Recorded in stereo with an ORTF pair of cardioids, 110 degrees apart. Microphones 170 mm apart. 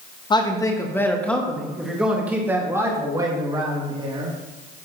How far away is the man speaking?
About 1.8 m.